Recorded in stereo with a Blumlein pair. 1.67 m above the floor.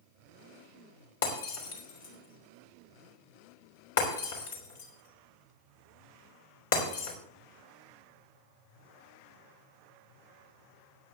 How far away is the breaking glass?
About 3.5 m.